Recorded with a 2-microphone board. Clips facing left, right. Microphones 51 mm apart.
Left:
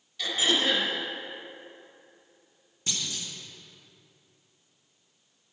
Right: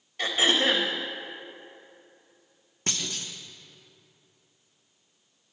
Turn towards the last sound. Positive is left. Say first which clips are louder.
# right 2 dB
turn(degrees=-55)  # may be behind; listen again after turning